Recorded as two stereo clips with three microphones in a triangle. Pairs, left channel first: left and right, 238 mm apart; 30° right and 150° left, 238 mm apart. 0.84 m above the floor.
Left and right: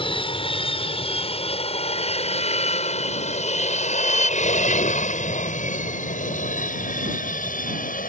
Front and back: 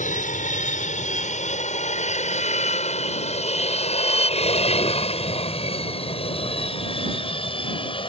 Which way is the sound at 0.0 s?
25° left.